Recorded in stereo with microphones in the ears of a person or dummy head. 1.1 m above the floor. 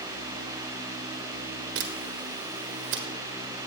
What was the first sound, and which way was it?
A camera shutter, 65° right (ahead or behind).